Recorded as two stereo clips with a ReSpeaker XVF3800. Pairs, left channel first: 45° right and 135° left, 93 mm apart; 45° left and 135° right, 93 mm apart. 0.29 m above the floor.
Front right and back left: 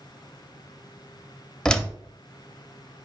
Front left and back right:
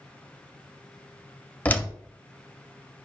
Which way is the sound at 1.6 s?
20° left.